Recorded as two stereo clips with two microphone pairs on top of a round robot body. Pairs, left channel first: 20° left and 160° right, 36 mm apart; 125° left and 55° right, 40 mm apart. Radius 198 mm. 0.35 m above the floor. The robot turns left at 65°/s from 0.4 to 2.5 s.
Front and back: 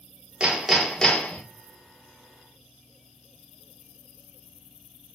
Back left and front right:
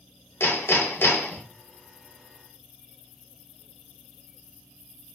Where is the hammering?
135° left, 1.0 m; by 1.4 s 70° left, 1.0 m.